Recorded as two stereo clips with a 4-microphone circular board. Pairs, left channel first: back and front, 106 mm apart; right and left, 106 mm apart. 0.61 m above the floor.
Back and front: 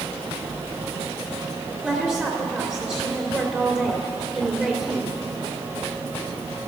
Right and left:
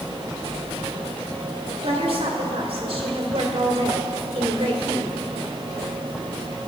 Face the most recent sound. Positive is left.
turn(degrees=80)